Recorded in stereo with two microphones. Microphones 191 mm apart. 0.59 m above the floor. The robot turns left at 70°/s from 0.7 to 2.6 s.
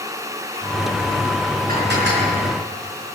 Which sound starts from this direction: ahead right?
Dishes clattering, at 1.7 s.